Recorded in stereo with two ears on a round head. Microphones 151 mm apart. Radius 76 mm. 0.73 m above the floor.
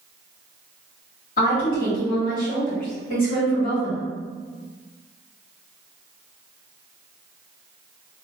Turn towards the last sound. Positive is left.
turn(degrees=55)  # may be behind; listen again after turning